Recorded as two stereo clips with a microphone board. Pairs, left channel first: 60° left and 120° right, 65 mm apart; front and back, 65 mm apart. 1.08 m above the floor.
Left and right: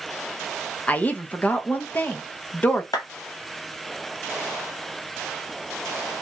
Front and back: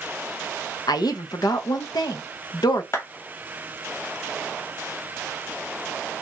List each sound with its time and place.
0.9 s a woman speaking: 5° right, 0.6 m
2.9 s a clap: 45° left, 1.1 m